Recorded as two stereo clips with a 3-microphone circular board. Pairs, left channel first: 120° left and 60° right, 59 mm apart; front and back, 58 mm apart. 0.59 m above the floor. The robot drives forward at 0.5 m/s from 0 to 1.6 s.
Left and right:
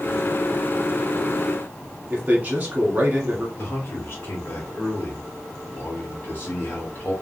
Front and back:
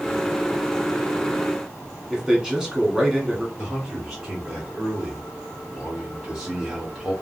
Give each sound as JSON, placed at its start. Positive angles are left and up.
{"t": 2.1, "sound": "a man speaking", "azimuth_deg": -110, "distance_m": 1.3}
{"t": 3.6, "sound": "a man speaking", "azimuth_deg": 100, "distance_m": 1.3}